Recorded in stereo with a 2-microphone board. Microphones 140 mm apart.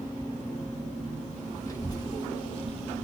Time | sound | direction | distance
1.7 | a child speaking | 25° left (ahead or behind) | 1.8 m